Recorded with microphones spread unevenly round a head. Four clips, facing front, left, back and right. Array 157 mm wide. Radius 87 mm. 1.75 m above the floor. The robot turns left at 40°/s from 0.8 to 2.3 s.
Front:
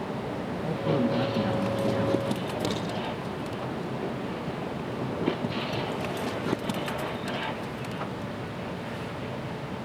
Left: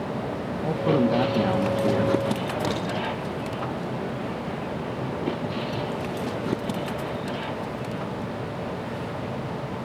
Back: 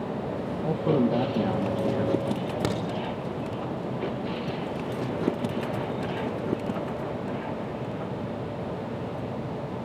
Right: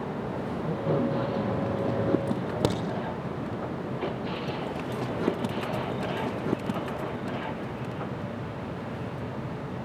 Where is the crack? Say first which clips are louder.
Left 2 dB, back 1 dB; 115° right, 5.5 m; by 2.8 s 120° right, 5.5 m.